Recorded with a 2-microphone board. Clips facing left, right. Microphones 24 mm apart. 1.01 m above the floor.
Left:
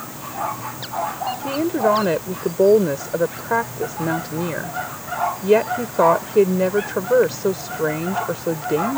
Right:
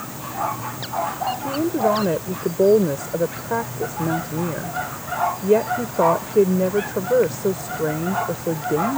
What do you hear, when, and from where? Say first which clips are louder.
1.4 s a woman speaking: left 2 dB; 50° left (ahead or behind)